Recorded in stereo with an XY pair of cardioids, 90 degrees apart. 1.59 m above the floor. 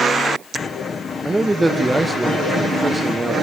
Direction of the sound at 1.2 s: 10° right.